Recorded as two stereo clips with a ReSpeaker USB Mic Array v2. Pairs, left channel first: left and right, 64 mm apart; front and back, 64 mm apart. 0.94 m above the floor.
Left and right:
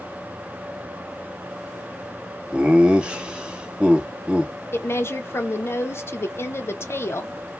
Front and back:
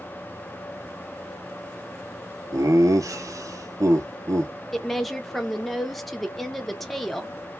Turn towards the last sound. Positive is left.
turn(degrees=85)